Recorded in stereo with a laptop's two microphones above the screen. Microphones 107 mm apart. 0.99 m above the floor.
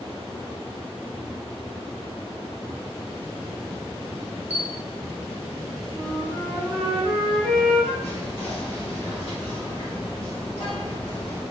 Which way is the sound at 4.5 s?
15° right (ahead or behind).